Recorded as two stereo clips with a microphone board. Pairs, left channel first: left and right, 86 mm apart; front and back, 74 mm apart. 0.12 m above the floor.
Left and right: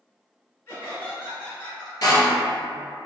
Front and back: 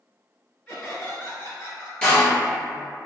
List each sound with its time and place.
0.7 s laughter: 60° left, 1.8 m; by 1.9 s 5° left, 1.8 m
2.0 s a door slam: 75° left, 1.1 m